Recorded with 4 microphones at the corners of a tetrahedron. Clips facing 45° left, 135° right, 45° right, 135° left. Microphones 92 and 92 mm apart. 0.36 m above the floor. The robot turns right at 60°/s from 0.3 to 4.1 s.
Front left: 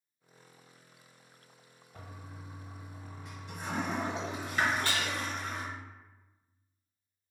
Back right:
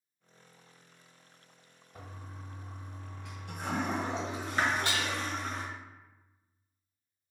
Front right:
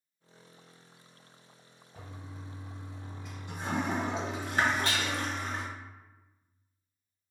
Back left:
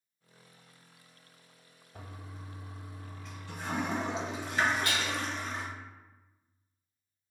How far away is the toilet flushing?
About 0.7 m.